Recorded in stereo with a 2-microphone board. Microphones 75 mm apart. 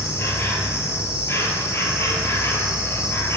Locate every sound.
0.0 s an insect: 35° left (ahead or behind), 0.8 m